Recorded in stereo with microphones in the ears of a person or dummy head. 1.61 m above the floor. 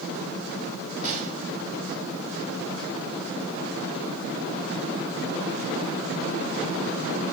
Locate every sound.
1.0 s a gunshot: 45° right (ahead or behind), 2.5 m